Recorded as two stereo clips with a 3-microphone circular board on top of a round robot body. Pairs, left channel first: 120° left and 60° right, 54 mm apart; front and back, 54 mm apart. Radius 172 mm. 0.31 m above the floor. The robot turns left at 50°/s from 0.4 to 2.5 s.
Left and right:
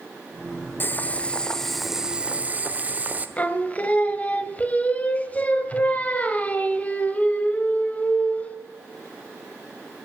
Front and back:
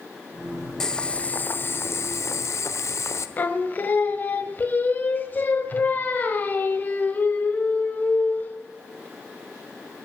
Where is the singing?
55° left, 1.3 m.